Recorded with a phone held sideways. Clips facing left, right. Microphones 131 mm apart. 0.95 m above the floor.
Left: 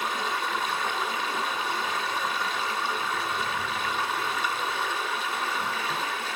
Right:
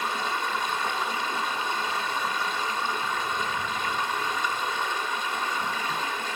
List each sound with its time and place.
0.0 s running water: 5° left (ahead or behind), 1.8 m